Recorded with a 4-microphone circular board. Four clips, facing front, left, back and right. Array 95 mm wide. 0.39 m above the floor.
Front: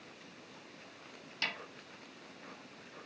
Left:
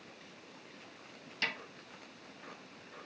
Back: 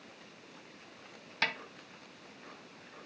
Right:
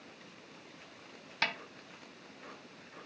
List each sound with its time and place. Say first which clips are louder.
1.4 s a snare drum: right 4 dB, back 6 dB; 135° right, 1.0 m